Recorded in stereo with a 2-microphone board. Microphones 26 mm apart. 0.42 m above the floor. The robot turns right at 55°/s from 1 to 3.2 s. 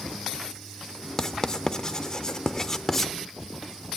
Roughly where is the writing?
Left.